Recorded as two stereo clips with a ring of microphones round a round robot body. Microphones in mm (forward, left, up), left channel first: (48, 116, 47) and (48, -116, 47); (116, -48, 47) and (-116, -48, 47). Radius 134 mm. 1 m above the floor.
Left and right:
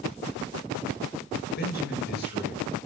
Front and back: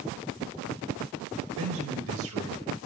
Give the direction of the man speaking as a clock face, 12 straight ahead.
7 o'clock.